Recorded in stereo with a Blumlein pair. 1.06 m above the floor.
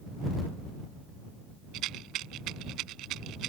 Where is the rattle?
35° right.